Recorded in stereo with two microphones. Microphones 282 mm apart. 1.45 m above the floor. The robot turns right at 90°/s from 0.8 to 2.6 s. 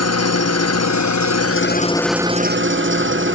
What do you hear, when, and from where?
0.0 s an engine running: 65° left, 0.9 m; by 3.4 s 135° right, 0.9 m